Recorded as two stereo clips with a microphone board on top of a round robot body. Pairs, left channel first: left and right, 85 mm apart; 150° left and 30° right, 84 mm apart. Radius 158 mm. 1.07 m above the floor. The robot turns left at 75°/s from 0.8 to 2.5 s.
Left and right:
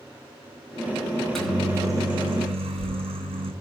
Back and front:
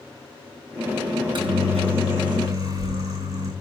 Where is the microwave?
20° left, 8.5 m; by 3.5 s 80° right, 8.5 m.